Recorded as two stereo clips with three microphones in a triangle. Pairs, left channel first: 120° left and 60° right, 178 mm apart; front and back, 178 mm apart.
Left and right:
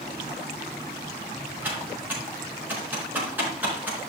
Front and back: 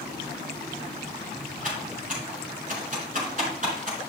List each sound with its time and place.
1.6 s typing on a keyboard: 140° right, 4.5 m